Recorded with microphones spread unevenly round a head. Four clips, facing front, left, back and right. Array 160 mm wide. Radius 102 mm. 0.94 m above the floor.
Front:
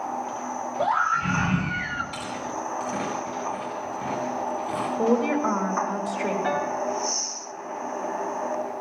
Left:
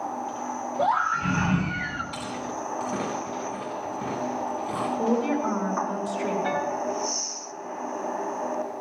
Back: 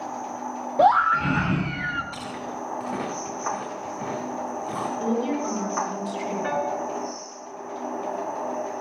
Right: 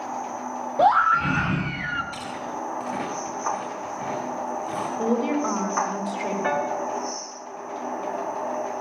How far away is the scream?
About 1.2 m.